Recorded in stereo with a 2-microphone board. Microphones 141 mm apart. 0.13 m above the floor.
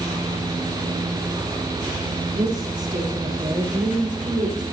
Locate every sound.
2.4 s a woman speaking: 70° right (ahead or behind), 5.5 m; by 4.6 s 65° right (ahead or behind), 8 m